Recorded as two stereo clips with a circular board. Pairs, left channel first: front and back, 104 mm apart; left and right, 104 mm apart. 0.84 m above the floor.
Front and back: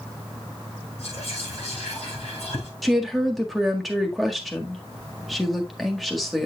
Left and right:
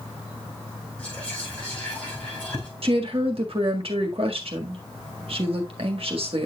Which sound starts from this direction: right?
A woman speaking, at 2.8 s.